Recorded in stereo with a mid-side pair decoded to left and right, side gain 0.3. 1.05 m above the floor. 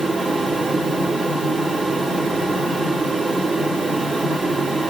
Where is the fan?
55° right, 2.5 m.